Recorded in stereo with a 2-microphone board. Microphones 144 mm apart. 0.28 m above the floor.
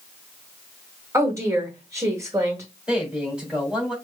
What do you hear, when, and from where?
1.1 s a woman speaking: 20° right (ahead or behind), 1.6 m
2.9 s a man speaking: 5° right (ahead or behind), 1.9 m